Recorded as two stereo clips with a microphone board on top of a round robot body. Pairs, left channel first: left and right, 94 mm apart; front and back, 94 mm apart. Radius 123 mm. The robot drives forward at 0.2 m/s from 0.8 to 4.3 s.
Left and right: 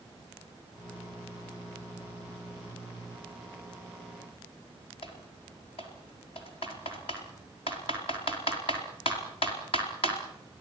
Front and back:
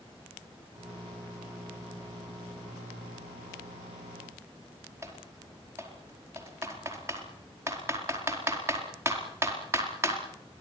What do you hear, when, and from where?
5.0 s typing on a keyboard: 115° left, 4.5 m